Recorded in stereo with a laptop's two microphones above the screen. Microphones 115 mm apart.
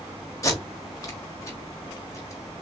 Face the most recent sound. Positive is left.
turn(degrees=30)  # may be behind; listen again after turning